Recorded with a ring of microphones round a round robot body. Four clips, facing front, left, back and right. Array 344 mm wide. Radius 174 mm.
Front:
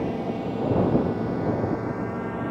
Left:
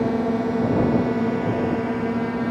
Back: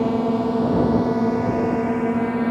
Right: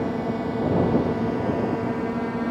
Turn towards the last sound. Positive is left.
turn(degrees=170)